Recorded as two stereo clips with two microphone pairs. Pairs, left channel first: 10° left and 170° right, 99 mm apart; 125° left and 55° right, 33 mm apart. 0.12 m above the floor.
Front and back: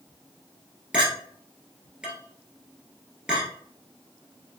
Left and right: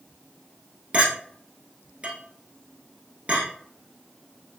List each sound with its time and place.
0.9 s a clink: 95° right, 1.4 m